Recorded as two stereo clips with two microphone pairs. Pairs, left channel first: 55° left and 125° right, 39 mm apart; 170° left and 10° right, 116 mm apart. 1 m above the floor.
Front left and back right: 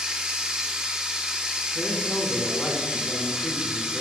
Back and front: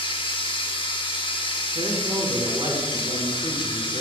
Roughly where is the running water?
Behind.